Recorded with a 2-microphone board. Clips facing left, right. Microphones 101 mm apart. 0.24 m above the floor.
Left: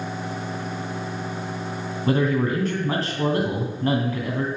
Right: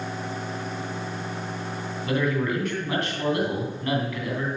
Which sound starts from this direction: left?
A man speaking, at 2.1 s.